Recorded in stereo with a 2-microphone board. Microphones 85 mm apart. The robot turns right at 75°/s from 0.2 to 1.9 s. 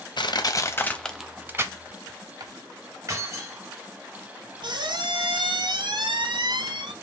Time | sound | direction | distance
0.2 | crushing | 65° left (ahead or behind) | 0.6 m
3.1 | keys jangling | 35° right (ahead or behind) | 3.5 m
4.6 | a squeak | 65° right (ahead or behind) | 0.7 m